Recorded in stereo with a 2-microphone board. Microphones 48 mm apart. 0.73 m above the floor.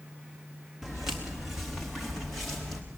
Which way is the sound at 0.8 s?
10° right (ahead or behind).